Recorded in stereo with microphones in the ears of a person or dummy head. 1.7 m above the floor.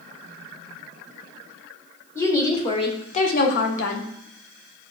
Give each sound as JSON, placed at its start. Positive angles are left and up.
{"t": 2.1, "sound": "a woman speaking", "side_deg": 15, "distance_m": 1.1}